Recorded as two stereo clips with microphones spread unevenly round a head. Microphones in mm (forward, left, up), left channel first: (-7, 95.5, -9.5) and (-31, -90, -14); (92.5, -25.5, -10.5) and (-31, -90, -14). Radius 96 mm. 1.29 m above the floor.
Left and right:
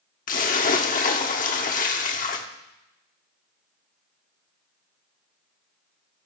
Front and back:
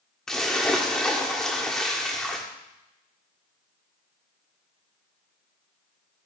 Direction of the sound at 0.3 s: 110° left.